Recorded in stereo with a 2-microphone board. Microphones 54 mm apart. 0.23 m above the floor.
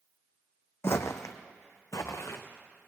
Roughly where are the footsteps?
Left.